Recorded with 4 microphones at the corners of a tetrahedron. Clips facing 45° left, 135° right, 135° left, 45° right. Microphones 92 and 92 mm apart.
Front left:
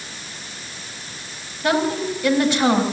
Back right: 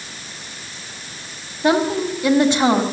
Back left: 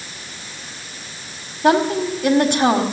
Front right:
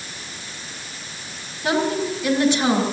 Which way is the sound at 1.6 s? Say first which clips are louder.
Back right 3 dB, back left 5 dB; 165° left.